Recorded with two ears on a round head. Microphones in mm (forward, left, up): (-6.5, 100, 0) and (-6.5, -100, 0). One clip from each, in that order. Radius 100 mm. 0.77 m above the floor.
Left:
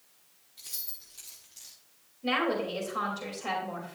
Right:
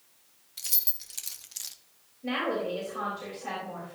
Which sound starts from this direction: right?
Keys jangling, at 0.6 s.